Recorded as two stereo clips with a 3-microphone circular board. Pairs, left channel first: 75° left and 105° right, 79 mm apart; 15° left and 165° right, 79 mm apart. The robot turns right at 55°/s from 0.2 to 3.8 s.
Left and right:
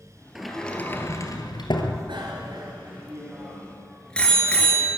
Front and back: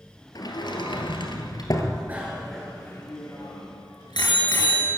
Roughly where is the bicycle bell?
Right.